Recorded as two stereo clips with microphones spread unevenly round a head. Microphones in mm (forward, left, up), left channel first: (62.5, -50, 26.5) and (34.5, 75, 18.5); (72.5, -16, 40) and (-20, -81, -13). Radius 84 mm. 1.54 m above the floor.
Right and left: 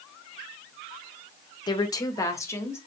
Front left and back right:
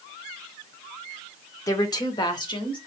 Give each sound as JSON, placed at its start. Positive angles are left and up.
{"t": 1.7, "sound": "a woman speaking", "azimuth_deg": -20, "distance_m": 0.8}